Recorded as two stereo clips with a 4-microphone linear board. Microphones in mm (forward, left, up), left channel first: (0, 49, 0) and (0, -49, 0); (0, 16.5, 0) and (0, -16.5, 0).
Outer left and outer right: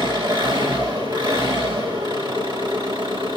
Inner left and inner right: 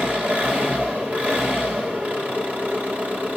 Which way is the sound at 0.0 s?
45° right (ahead or behind).